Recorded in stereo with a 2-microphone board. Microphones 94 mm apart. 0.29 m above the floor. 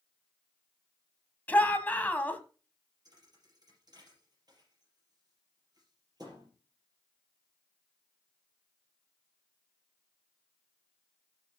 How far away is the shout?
About 1.5 m.